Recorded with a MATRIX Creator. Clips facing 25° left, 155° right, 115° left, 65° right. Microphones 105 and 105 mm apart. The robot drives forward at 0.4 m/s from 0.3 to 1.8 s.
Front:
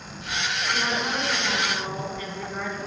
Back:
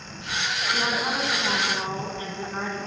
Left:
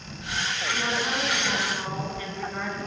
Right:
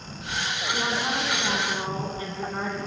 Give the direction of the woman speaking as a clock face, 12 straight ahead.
3 o'clock.